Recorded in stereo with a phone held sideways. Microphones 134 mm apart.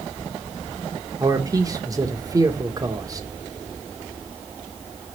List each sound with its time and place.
1.2 s a man speaking: 25° right (ahead or behind), 1.0 m